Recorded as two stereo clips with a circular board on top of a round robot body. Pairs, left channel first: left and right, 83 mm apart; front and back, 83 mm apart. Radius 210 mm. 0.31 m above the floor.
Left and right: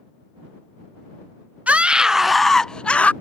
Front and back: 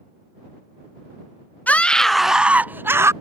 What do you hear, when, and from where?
1.7 s a scream: 40° right; by 3.1 s 155° left